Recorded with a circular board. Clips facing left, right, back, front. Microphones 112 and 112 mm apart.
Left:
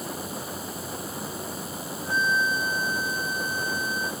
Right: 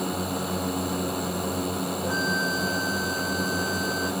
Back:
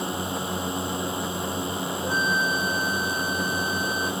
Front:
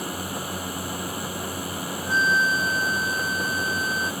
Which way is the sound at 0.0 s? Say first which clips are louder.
Right 6 dB, back 2 dB; 110° right.